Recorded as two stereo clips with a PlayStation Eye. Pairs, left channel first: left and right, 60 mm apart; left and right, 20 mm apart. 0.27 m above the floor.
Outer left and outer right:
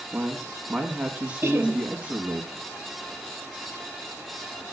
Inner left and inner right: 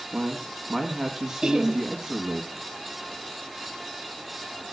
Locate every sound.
0.1 s a man speaking: 20° right (ahead or behind), 2.0 m
1.4 s laughter: 35° right (ahead or behind), 1.9 m